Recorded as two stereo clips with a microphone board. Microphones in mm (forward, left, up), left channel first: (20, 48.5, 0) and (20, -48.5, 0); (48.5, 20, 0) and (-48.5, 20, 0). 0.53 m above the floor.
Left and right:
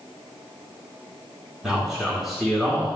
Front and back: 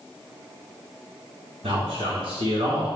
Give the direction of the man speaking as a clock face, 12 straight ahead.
6 o'clock.